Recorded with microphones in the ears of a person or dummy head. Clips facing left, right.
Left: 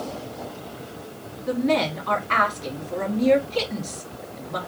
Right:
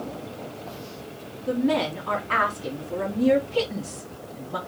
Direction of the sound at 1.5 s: 25° right (ahead or behind).